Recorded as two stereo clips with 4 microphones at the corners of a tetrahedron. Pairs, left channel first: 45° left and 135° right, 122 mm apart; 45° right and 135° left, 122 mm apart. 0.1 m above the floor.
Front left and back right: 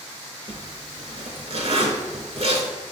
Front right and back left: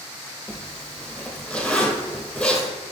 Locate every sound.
0.5 s a zipper: 120° right, 0.6 m